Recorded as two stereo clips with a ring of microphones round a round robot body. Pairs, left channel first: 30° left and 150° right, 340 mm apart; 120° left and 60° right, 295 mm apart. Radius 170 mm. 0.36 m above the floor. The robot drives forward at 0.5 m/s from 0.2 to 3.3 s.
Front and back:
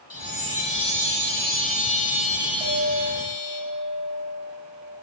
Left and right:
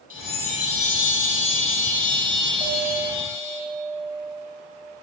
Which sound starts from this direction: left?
A chime, at 0.1 s.